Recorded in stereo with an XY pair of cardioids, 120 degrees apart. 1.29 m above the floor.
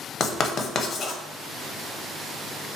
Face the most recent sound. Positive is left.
turn(degrees=40)